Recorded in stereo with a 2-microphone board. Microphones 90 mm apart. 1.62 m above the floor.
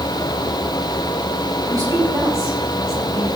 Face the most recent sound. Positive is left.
turn(degrees=-30)  # may be behind; listen again after turning